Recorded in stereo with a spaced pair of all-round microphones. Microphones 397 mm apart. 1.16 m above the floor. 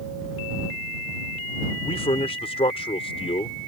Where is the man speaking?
15° left (ahead or behind).